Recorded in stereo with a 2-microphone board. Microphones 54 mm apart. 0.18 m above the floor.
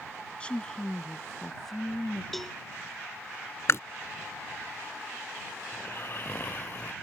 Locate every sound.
0.4 s a woman speaking: 20° left (ahead or behind); by 2.2 s 5° right (ahead or behind)
2.3 s a cowbell: 5° left (ahead or behind)
3.7 s chewing: 55° left (ahead or behind)
5.7 s snoring: 40° left (ahead or behind)